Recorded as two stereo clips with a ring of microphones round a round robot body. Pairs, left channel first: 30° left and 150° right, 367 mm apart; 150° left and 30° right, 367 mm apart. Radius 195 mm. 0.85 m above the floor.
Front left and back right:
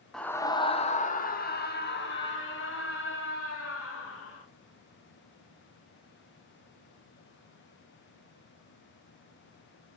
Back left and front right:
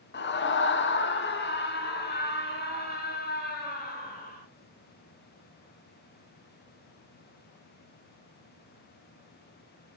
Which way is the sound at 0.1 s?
120° left.